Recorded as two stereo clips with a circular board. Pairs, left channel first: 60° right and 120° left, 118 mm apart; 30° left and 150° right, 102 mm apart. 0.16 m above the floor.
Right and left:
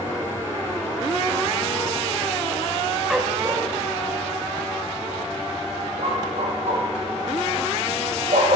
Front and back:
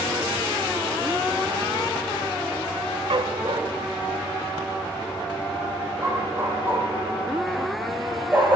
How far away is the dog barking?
About 0.5 m.